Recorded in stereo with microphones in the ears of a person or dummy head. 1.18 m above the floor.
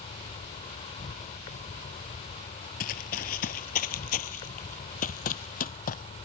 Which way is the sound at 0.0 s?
30° left (ahead or behind).